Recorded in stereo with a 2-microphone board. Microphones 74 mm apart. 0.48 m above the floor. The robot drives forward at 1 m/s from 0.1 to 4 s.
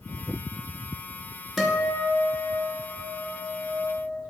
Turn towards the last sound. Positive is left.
turn(degrees=0)  # may be behind; listen again after turning